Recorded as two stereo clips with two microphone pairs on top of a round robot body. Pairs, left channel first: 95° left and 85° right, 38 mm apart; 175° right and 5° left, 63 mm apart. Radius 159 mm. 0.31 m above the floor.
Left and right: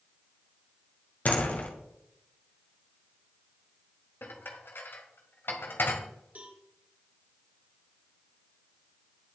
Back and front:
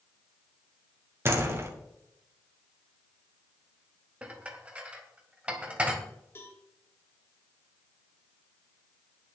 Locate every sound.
1.2 s a door slam: 55° left, 2.5 m
4.2 s dishes clattering: 80° left, 2 m
6.3 s a cowbell: 125° right, 2.5 m